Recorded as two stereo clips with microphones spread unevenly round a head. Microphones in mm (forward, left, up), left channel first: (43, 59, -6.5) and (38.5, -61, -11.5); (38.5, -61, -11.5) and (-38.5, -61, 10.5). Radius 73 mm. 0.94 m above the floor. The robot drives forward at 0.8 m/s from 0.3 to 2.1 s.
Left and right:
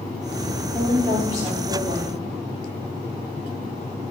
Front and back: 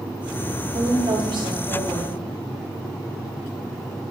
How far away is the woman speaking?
About 6.5 m.